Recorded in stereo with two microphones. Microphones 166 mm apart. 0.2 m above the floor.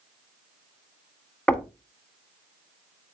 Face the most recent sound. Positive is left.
turn(degrees=5)  # may be behind; listen again after turning